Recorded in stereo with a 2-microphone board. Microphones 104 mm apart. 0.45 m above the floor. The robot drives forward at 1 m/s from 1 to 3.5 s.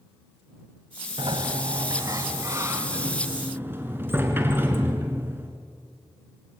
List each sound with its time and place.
1.2 s a sliding door: 55° right (ahead or behind), 1.4 m; by 5.5 s 20° right (ahead or behind), 3 m